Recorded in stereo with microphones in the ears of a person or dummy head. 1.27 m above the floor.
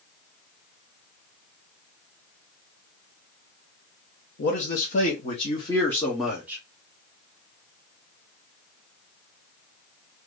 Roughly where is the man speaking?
Left.